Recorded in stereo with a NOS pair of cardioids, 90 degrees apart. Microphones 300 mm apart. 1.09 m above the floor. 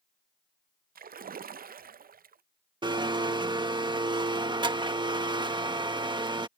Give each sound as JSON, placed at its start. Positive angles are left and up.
{"t": 0.9, "sound": "a splash", "azimuth_deg": -30}
{"t": 2.8, "sound": "a blender", "azimuth_deg": -15}